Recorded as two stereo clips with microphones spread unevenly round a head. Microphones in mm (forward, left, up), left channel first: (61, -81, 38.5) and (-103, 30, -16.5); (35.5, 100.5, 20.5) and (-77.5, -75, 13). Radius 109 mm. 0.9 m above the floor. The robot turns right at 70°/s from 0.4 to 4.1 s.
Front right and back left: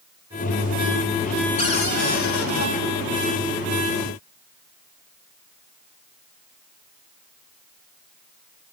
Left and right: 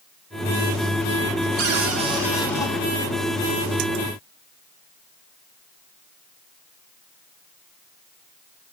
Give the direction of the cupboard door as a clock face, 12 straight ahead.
3 o'clock.